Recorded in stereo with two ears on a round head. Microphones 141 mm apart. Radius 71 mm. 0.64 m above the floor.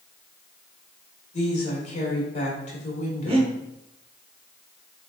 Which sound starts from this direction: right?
Breathing, at 3.3 s.